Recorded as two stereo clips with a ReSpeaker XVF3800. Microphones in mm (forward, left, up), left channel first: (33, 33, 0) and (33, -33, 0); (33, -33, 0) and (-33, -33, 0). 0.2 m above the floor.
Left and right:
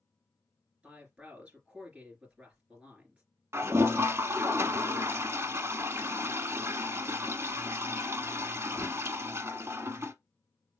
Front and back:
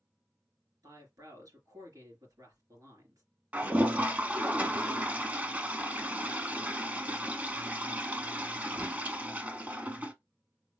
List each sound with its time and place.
0.8 s a woman speaking: 165° right, 3 m
3.5 s a toilet flushing: 120° right, 0.7 m